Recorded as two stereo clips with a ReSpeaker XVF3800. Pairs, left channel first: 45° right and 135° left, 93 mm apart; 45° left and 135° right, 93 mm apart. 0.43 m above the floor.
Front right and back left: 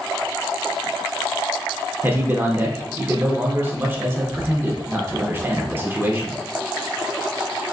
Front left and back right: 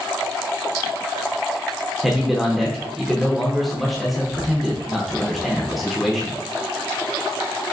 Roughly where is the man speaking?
Behind left.